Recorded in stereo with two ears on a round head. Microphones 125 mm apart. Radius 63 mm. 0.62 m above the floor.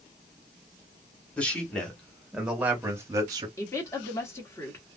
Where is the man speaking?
10° left (ahead or behind), 1.5 m; by 3.5 s 30° right (ahead or behind), 0.8 m.